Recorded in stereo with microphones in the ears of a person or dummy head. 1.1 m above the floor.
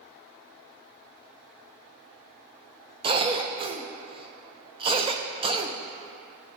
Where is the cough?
25° right (ahead or behind), 0.5 m.